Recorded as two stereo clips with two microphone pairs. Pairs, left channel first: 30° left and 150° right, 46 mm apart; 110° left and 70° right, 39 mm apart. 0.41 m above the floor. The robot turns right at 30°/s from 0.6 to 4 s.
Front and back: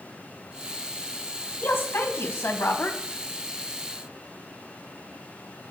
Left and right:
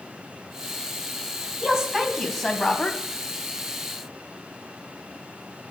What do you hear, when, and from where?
1.6 s a woman speaking: straight ahead, 2.5 m; by 3.0 s 40° left, 2.5 m